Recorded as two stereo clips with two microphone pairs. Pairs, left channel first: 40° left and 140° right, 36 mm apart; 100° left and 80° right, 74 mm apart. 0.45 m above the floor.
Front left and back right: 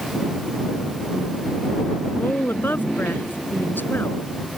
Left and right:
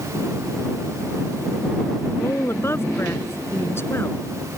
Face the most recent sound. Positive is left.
turn(degrees=50)